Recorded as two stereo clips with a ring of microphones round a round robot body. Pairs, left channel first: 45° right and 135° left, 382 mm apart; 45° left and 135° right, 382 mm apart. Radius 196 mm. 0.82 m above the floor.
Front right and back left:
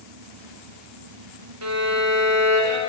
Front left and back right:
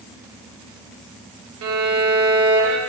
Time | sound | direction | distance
1.6 | a violin | straight behind | 0.8 m